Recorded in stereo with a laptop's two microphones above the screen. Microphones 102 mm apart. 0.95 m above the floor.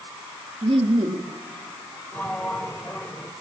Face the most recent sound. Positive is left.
turn(degrees=15)  # may be behind; listen again after turning